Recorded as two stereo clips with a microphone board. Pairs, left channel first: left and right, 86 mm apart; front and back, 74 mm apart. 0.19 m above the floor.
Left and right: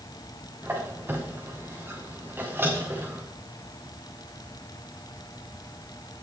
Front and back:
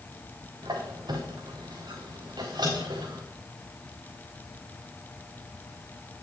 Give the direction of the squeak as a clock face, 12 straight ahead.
5 o'clock.